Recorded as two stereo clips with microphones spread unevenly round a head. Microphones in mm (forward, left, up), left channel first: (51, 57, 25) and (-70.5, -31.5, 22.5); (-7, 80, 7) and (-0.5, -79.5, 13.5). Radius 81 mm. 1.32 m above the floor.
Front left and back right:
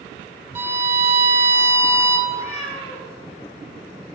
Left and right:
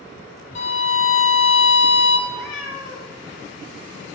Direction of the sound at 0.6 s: 140° left.